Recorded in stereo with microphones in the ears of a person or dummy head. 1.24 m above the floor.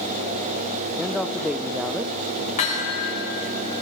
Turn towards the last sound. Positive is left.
turn(degrees=45)  # may be behind; listen again after turning